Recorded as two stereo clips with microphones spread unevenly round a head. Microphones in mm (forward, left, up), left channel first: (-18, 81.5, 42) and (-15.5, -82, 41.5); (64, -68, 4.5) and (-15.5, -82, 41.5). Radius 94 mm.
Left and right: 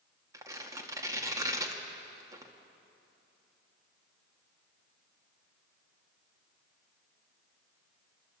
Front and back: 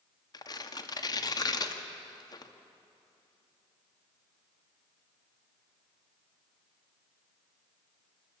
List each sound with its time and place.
0.3 s tearing paper: 20° right, 2 m